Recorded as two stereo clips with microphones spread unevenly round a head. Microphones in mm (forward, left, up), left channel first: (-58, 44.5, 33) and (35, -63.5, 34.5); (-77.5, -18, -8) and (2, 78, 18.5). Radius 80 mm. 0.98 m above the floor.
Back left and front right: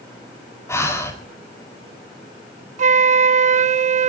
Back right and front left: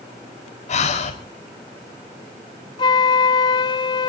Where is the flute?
80° right, 0.7 m.